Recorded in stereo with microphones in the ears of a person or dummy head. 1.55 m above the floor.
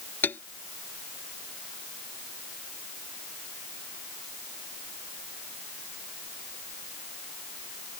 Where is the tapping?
5° left (ahead or behind).